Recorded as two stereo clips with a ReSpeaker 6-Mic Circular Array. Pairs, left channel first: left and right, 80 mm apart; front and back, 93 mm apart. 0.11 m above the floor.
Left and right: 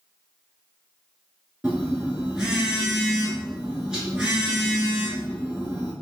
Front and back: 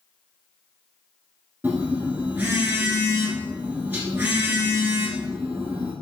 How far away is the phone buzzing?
About 1.1 m.